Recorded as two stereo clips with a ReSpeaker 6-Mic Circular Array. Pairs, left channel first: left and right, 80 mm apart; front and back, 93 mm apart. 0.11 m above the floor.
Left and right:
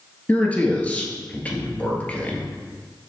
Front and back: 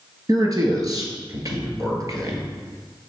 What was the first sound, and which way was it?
A man speaking, 155° left.